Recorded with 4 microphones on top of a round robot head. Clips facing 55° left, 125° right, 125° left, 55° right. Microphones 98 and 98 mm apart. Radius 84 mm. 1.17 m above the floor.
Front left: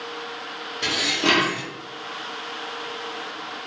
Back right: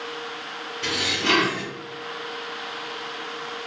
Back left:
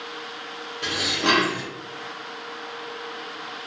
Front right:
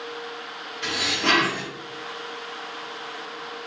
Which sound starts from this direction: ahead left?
Dishes clattering, at 0.8 s.